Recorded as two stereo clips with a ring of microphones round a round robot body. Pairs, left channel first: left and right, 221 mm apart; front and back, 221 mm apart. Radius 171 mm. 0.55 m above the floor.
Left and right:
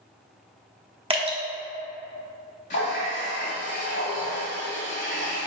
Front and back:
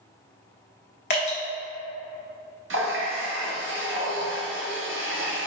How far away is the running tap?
About 1.0 m.